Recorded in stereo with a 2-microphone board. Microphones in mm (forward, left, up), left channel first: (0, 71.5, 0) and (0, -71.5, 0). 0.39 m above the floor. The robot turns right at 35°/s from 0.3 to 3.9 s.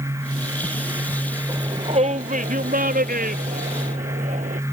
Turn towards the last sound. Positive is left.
turn(degrees=-60)  # may be behind; listen again after turning